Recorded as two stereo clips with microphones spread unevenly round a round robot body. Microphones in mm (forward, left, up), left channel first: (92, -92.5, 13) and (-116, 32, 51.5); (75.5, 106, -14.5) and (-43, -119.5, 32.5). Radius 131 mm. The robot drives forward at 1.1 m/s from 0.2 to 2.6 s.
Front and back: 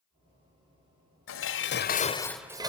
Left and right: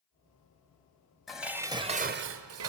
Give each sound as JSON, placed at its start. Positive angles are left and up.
{"t": 1.3, "sound": "dishes clattering", "azimuth_deg": -20, "distance_m": 1.3}